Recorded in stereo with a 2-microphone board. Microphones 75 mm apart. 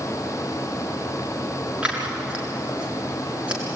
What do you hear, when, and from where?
1.8 s scissors: 15° right (ahead or behind), 7 m